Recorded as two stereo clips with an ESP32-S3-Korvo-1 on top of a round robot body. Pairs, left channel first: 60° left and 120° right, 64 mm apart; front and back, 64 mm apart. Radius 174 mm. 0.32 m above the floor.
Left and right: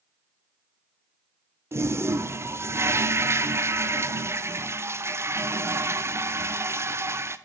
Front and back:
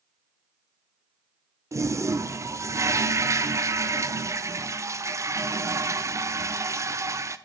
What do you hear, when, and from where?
1.7 s a toilet flushing: 155° right, 1.2 m